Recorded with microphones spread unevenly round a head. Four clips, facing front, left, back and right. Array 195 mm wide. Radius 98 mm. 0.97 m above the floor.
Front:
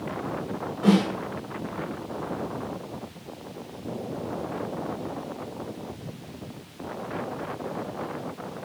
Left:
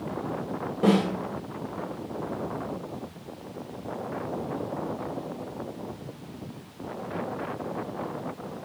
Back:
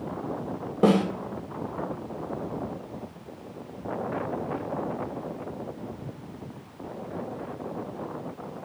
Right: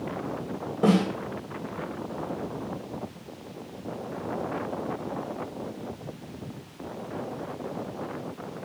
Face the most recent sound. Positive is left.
turn(degrees=-175)